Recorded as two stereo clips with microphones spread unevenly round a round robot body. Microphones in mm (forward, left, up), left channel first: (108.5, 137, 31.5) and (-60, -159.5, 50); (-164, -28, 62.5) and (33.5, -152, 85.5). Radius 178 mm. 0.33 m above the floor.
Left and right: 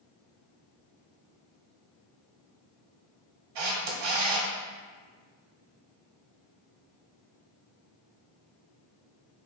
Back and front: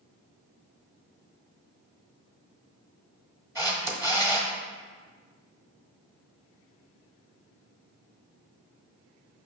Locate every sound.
3.5 s a camera shutter: 115° right, 1.2 m